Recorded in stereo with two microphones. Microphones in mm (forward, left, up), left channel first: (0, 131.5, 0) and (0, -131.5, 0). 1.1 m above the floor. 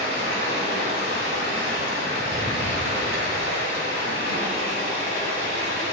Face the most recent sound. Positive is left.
turn(degrees=-40)  # may be behind; listen again after turning